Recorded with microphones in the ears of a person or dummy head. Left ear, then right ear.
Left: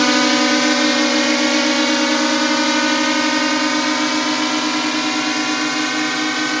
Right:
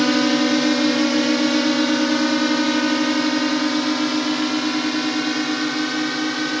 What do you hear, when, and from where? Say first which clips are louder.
0.0 s a drone: left 4 dB; 35° left (ahead or behind); by 6.6 s 40° left (ahead or behind)